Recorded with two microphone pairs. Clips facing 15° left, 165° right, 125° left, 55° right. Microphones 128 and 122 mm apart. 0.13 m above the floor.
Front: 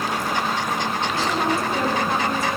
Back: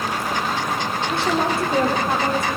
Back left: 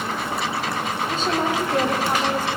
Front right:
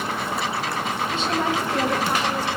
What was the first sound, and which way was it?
A woman speaking, 175° left.